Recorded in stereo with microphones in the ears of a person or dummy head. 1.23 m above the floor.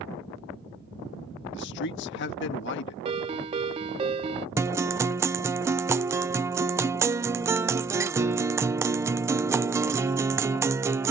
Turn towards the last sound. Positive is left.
turn(degrees=-15)  # may be behind; listen again after turning